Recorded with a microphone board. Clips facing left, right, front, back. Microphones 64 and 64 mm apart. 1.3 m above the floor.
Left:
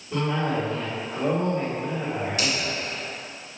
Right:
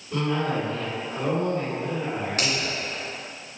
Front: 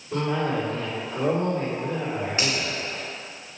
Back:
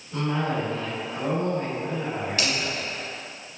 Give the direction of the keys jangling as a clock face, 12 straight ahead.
No keys jangling in this recording.